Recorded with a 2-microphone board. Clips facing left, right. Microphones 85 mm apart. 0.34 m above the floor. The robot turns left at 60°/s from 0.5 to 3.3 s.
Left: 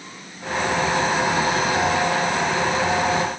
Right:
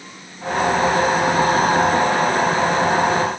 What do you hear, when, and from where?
Only background noise.